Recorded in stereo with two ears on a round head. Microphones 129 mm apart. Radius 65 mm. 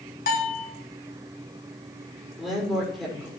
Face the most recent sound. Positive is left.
turn(degrees=0)  # may be behind; listen again after turning